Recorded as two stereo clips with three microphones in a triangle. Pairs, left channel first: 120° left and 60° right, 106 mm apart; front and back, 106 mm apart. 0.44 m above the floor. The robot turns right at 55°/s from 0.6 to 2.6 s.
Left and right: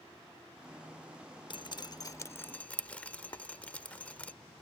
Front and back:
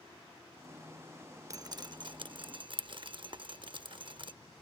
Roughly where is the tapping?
Behind.